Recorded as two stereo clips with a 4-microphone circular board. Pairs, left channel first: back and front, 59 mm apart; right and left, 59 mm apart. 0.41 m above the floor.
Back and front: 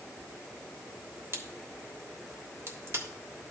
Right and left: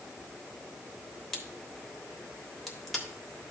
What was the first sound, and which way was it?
A crack, straight ahead.